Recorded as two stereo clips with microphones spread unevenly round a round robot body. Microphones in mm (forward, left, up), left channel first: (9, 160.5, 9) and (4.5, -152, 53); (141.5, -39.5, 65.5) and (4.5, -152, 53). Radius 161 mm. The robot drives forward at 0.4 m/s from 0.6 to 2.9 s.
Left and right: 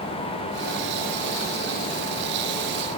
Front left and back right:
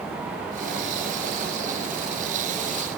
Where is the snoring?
No snoring in this recording.